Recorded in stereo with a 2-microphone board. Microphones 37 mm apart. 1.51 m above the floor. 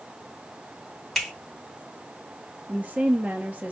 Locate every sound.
1.1 s a finger snap: 5° left (ahead or behind), 3 m
2.7 s a woman speaking: 35° right (ahead or behind), 1.7 m